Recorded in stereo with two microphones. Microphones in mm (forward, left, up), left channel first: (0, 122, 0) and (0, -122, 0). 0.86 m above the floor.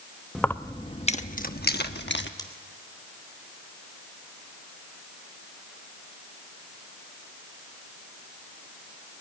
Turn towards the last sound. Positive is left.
turn(degrees=20)  # may be behind; listen again after turning